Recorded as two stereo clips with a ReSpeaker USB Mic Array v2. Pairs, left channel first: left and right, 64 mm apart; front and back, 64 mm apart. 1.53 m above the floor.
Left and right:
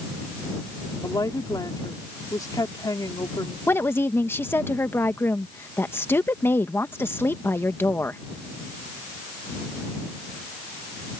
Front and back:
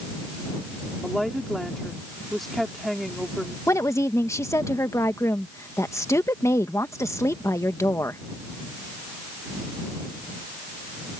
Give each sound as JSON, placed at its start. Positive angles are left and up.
{"t": 1.0, "sound": "a woman speaking", "azimuth_deg": 85}
{"t": 3.7, "sound": "a woman speaking", "azimuth_deg": 40}